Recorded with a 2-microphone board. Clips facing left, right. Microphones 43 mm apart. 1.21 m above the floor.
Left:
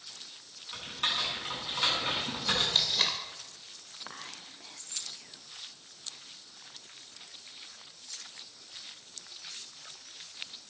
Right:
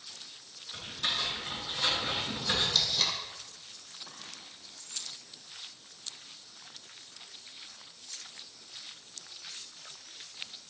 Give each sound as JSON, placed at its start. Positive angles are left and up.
{"t": 0.7, "sound": "typing on a keyboard", "side_deg": 45, "distance_m": 8.0}
{"t": 2.7, "sound": "tape being pulled", "side_deg": 35, "distance_m": 2.5}
{"t": 4.1, "sound": "whispering", "side_deg": 60, "distance_m": 1.0}